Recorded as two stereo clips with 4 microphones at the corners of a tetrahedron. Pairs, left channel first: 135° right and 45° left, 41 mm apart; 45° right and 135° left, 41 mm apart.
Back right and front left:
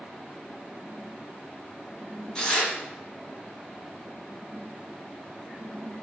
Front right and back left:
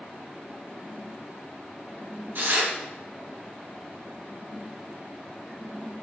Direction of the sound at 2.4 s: 155° left.